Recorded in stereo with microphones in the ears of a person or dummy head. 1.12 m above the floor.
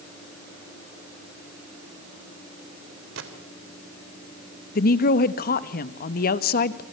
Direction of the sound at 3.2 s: 75° right (ahead or behind).